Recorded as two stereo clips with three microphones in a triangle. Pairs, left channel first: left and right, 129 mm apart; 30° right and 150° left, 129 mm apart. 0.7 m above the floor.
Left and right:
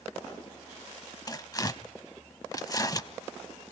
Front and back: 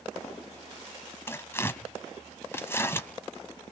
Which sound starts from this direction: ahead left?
Tearing paper, at 1.3 s.